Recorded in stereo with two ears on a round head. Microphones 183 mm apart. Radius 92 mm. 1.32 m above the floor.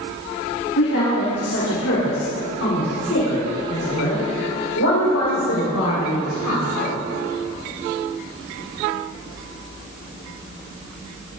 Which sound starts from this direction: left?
A woman speaking, at 0.8 s.